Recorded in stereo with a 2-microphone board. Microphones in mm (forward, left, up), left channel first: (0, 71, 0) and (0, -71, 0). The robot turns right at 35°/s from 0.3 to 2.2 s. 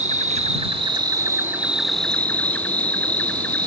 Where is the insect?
55° right; by 3.7 s 10° left.